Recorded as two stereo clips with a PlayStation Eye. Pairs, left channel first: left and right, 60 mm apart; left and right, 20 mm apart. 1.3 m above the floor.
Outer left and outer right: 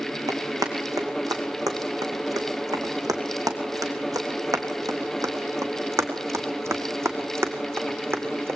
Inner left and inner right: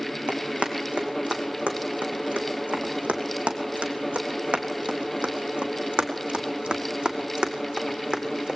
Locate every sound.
0.3 s running footsteps: 70° right (ahead or behind), 4.5 m; by 8.6 s 40° right (ahead or behind), 4 m